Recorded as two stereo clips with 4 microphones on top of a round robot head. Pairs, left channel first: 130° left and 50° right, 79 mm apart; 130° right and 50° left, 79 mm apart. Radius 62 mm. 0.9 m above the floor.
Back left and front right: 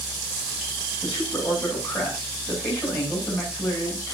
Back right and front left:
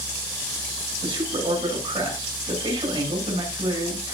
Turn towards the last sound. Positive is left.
turn(degrees=50)